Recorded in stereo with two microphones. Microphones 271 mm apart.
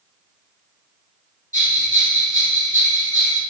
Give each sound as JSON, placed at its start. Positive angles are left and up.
{"t": 1.5, "sound": "a bell", "side_deg": -30, "distance_m": 0.9}